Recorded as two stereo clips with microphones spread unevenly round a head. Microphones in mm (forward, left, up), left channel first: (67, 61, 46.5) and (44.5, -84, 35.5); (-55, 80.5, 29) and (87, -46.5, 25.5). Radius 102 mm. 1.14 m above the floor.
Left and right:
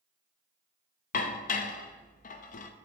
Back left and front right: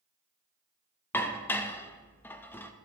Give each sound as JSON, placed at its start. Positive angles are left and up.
{"t": 1.1, "sound": "dishes clattering", "azimuth_deg": 60, "distance_m": 0.6}